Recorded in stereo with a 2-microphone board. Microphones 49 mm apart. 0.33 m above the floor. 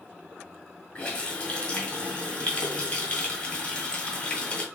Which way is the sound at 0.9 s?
25° left (ahead or behind).